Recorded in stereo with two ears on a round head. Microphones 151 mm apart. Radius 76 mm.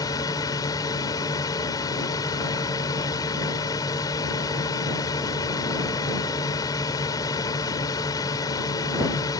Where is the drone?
20° left (ahead or behind).